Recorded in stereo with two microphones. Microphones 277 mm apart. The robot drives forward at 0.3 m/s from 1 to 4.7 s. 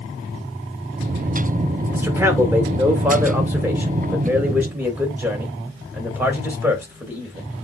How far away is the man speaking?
About 2.5 m.